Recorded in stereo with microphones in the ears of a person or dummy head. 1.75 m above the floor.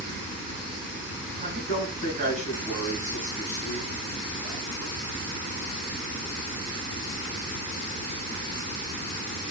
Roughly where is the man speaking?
Right.